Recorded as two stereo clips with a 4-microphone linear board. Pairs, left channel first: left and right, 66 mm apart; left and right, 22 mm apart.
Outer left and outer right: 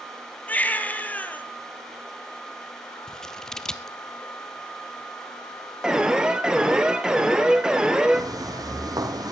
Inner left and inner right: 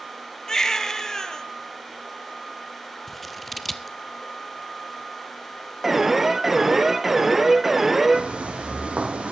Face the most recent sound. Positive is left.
turn(degrees=-75)  # may be behind; listen again after turning